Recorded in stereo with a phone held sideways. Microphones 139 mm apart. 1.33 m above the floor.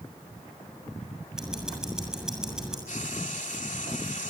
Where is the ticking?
5° right (ahead or behind), 7 m.